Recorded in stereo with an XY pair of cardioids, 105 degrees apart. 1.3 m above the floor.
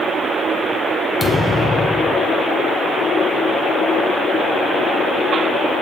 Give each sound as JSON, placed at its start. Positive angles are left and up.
{"t": 1.2, "sound": "a thud", "azimuth_deg": 10, "distance_m": 2.5}